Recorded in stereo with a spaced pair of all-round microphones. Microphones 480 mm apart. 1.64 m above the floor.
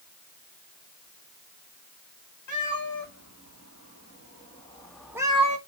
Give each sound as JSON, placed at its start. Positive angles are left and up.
{"t": 2.5, "sound": "a cat meowing", "side_deg": 40, "distance_m": 1.9}